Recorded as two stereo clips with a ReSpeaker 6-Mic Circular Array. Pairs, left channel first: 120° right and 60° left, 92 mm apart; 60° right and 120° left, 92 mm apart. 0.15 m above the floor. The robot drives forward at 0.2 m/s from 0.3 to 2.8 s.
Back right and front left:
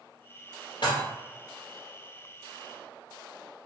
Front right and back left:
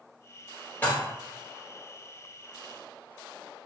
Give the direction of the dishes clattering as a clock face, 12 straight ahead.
4 o'clock.